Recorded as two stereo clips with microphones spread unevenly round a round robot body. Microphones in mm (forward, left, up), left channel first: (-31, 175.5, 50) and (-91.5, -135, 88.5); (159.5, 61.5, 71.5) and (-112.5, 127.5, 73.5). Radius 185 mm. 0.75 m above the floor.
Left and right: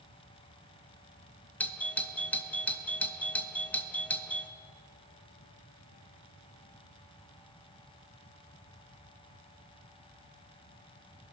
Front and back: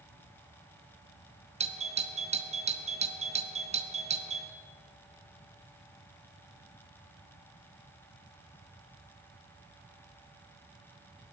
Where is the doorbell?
140° left, 1.1 m.